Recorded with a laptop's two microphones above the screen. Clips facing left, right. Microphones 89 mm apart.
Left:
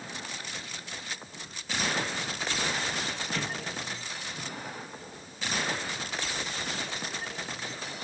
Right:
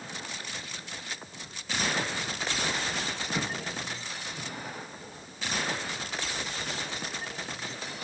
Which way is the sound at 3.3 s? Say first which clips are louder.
Right 3 dB; 15° right (ahead or behind).